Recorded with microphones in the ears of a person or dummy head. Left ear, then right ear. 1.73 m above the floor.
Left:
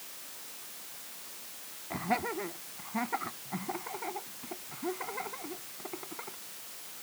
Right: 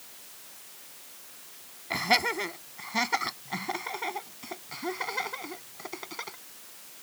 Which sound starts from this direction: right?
Laughter, at 1.9 s.